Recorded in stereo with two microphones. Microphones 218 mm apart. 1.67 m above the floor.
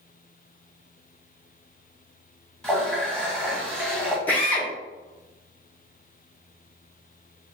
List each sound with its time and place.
2.6 s a running tap: 5° left (ahead or behind), 1.4 m
4.3 s a drill: 5° left (ahead or behind), 1.4 m